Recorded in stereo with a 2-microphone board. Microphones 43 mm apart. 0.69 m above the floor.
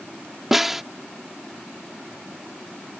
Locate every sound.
0.5 s a snare drum: 5° right (ahead or behind)